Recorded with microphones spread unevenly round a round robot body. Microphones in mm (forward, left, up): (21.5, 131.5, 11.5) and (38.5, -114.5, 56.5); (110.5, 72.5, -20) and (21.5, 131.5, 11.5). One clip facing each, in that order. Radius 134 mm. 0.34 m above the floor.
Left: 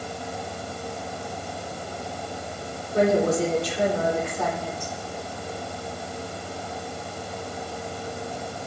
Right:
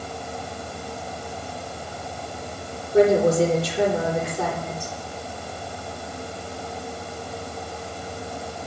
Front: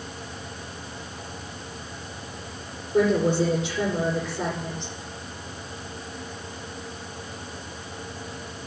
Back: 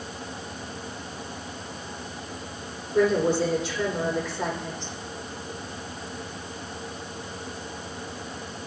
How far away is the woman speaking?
About 9.5 m.